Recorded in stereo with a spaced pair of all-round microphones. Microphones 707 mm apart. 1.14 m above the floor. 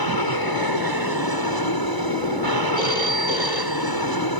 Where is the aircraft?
30° left (ahead or behind).